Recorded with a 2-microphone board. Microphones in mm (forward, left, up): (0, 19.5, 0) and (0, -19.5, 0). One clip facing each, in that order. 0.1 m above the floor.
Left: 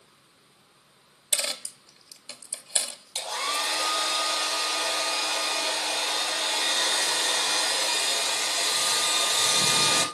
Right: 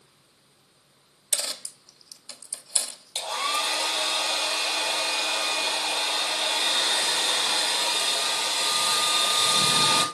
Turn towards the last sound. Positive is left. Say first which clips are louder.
# right 2 dB
turn(degrees=-25)  # may be behind; listen again after turning